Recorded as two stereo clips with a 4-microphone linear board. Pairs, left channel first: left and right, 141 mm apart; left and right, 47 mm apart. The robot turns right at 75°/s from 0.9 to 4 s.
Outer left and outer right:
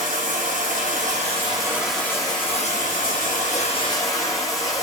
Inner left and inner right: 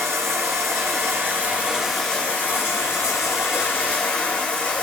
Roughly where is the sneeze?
I don't hear a sneeze.